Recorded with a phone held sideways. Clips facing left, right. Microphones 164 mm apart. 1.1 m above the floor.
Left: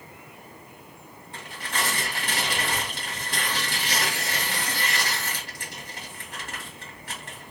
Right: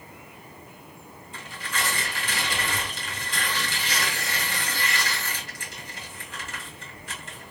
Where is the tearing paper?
60° left (ahead or behind), 2.5 m.